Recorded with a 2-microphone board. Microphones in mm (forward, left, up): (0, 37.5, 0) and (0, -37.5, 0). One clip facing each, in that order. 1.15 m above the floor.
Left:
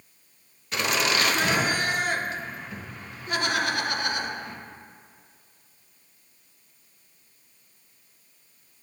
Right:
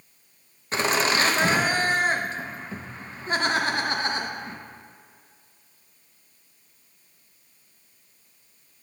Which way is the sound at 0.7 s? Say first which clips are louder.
Right 2 dB; 35° right (ahead or behind).